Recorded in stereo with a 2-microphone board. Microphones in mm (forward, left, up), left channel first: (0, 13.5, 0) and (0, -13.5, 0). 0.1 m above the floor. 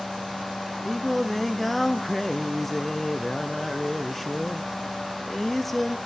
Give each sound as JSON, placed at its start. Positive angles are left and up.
{"t": 0.8, "sound": "singing", "side_deg": 5, "distance_m": 0.6}